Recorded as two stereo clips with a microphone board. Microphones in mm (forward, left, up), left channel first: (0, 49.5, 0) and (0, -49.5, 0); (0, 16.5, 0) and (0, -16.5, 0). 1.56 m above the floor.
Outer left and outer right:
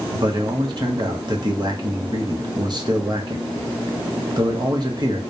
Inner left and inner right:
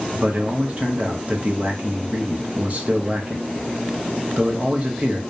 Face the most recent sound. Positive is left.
turn(degrees=-45)  # may be behind; listen again after turning